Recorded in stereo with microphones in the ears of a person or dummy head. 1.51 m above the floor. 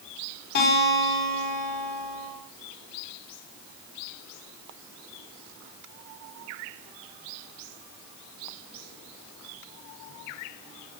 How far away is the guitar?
About 6 m.